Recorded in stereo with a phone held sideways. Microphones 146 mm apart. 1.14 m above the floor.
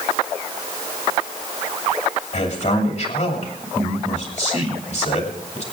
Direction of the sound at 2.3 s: 55° left (ahead or behind).